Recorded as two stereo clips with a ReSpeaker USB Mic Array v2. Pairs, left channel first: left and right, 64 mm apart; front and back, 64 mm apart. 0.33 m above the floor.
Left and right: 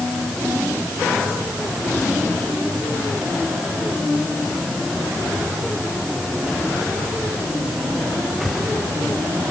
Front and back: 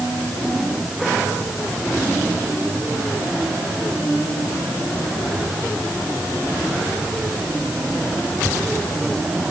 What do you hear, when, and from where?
Only background noise.